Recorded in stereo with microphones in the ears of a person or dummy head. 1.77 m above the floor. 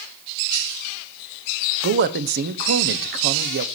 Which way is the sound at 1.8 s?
60° right (ahead or behind).